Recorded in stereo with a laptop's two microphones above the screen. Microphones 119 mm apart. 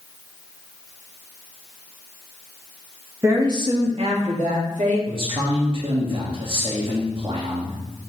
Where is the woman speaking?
25° right (ahead or behind), 1.5 m; by 5.0 s 75° right (ahead or behind), 1.9 m.